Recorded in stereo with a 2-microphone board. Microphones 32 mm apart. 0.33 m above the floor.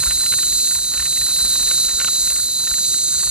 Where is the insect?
30° right (ahead or behind).